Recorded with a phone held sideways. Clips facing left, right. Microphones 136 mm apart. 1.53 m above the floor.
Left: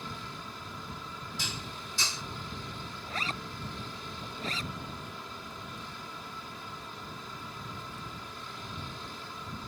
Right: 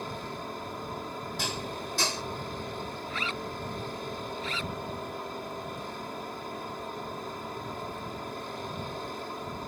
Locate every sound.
0.0 s a machine running: 55° right (ahead or behind)
1.4 s dishes clattering: 60° right (ahead or behind)
3.1 s a zipper: 40° left (ahead or behind)